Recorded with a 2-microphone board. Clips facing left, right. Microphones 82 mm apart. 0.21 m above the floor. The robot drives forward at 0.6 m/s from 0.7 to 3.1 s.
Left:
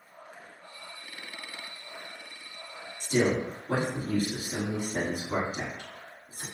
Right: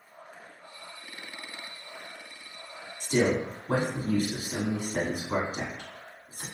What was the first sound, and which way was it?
A man speaking, 45° right (ahead or behind).